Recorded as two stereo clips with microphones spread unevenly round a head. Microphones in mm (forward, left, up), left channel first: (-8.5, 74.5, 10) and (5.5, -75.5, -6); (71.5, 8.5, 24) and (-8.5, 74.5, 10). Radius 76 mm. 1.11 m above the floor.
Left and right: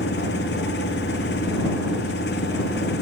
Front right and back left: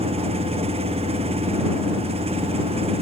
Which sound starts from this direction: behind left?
An engine running, at 0.0 s.